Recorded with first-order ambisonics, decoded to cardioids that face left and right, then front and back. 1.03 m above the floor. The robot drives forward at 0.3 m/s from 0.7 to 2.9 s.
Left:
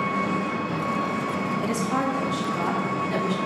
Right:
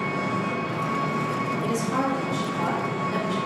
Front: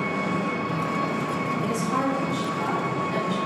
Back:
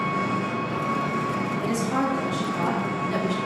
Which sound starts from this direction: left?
A woman speaking, at 1.6 s.